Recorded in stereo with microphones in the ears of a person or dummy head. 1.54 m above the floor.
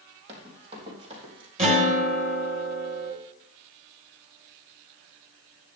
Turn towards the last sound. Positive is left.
turn(degrees=-30)  # may be behind; listen again after turning